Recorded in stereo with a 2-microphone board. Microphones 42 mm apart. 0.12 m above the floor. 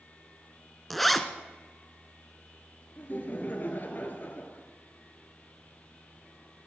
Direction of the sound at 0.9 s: Centre (ahead or behind).